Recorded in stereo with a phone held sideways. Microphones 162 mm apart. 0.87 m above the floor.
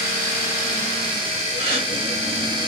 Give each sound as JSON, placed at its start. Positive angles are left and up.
{"t": 1.6, "sound": "a gasp", "side_deg": -35, "distance_m": 1.6}